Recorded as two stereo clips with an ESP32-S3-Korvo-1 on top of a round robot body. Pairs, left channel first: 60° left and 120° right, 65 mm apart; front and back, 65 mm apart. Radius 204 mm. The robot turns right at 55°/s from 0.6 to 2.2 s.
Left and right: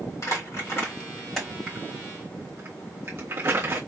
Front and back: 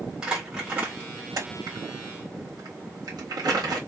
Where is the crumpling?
100° left, 1.5 m; by 3.8 s 170° right, 1.5 m.